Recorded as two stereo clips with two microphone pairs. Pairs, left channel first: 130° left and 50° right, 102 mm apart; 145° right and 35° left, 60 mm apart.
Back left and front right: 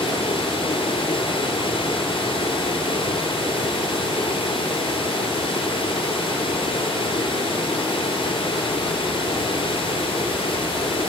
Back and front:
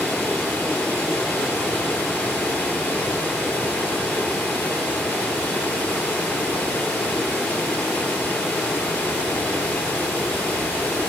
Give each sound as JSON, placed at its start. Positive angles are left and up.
{"t": 0.0, "sound": "running water", "azimuth_deg": 150, "distance_m": 2.5}